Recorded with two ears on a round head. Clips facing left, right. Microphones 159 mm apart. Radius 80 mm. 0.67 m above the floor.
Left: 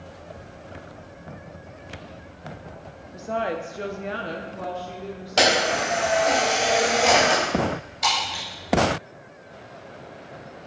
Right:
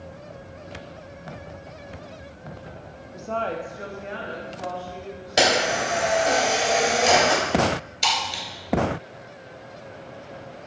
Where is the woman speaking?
Centre (ahead or behind), 0.6 m; by 6.4 s 70° left (ahead or behind), 1.9 m.